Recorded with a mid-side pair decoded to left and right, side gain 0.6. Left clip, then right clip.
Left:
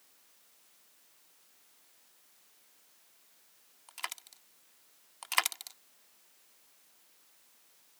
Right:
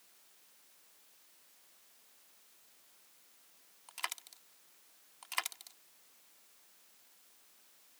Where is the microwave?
No microwave in this recording.